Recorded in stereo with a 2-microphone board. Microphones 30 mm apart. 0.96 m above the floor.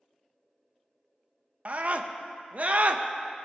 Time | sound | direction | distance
1.6 | a scream | 50° right (ahead or behind) | 0.7 m